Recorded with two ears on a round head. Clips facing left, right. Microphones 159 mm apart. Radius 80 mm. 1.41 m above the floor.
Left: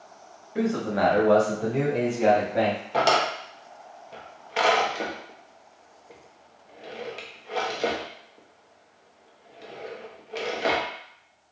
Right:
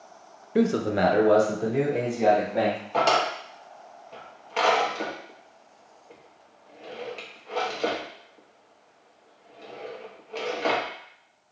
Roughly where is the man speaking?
Right.